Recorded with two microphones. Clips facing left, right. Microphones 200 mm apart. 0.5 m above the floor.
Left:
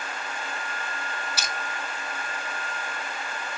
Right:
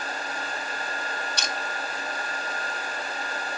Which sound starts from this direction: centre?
Crushing, at 1.4 s.